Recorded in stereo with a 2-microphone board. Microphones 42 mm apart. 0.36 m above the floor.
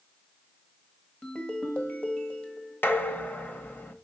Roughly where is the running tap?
No running tap in this recording.